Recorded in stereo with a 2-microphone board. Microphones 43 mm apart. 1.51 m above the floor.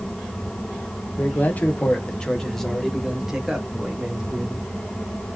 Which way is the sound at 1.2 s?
45° left (ahead or behind).